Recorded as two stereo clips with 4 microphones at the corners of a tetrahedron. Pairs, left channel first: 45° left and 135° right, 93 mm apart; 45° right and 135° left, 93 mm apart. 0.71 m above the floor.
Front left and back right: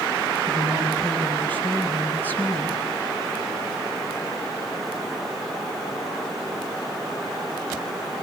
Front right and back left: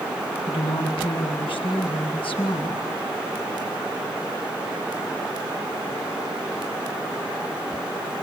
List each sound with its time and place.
0.5 s a woman speaking: 25° right, 5 m